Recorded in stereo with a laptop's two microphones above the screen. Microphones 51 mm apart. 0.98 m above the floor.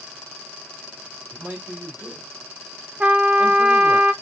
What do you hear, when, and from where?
1.3 s a man speaking: 25° right (ahead or behind), 2 m
3.0 s a trumpet: 25° right (ahead or behind), 0.5 m